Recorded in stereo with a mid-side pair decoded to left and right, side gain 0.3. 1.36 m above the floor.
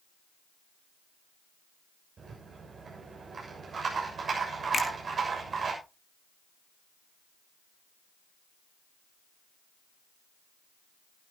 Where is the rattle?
65° right, 6.5 m.